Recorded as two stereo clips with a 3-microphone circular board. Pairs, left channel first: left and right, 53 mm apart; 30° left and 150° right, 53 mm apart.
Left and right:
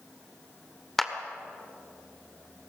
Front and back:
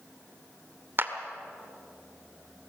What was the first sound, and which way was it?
A clap, 175° left.